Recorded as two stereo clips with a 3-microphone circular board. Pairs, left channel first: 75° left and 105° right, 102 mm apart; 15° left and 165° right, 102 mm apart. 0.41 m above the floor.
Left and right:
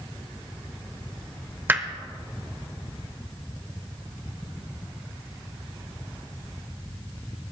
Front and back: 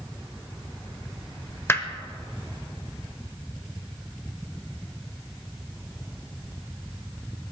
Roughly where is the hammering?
Ahead right.